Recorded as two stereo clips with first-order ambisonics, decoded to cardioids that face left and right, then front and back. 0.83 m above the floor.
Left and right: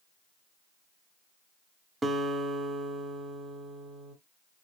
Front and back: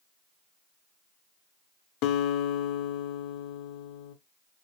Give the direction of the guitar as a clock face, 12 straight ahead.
12 o'clock.